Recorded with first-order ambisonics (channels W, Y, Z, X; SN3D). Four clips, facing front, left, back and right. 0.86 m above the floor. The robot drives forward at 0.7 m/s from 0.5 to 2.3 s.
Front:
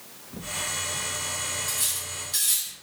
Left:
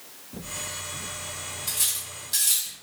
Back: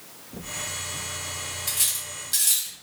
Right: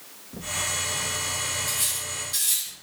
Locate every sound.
1.7 s cutlery clinking: 165° left, 0.8 m; by 2.7 s 170° left, 1.2 m